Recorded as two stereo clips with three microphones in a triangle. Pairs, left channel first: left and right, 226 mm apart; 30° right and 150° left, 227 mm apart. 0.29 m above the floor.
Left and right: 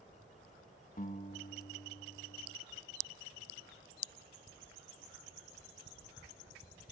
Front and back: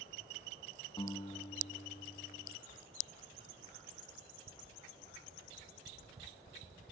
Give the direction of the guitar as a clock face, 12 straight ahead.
11 o'clock.